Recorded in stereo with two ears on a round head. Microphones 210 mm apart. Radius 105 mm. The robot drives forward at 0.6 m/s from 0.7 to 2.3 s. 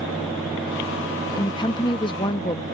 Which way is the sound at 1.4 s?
20° left (ahead or behind).